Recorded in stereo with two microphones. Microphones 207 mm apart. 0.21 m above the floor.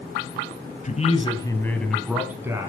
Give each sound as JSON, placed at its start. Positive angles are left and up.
{"t": 0.8, "sound": "a man speaking", "side_deg": 35, "distance_m": 1.1}